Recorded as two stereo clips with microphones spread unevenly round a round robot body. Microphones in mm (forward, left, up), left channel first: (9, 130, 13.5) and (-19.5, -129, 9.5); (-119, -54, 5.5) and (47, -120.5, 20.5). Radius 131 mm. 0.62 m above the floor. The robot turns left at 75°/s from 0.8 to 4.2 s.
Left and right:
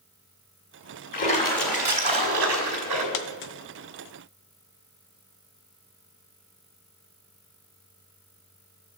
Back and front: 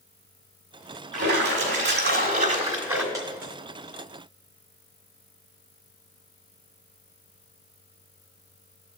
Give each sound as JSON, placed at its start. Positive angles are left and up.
{"t": 1.1, "sound": "a splash", "azimuth_deg": 35, "distance_m": 1.9}
{"t": 3.1, "sound": "a dropped coin", "azimuth_deg": 55, "distance_m": 0.6}